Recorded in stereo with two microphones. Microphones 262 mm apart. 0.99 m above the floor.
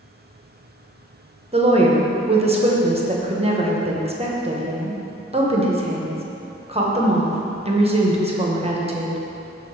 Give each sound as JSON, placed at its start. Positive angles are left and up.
{"t": 1.5, "sound": "a woman speaking", "side_deg": -25, "distance_m": 0.7}